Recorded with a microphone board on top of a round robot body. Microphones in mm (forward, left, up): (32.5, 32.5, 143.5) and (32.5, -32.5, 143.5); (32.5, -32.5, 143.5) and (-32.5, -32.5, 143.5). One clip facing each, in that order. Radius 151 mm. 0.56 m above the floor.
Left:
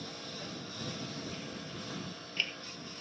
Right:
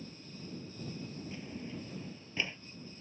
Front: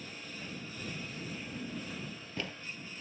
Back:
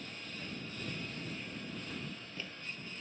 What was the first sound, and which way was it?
A lawn mower, 85° left.